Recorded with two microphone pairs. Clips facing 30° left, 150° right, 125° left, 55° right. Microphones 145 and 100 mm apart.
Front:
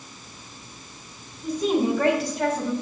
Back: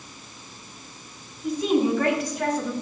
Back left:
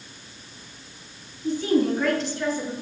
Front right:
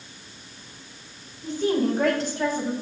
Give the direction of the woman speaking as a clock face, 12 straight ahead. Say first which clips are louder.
Back 1 dB, back left 2 dB; 12 o'clock.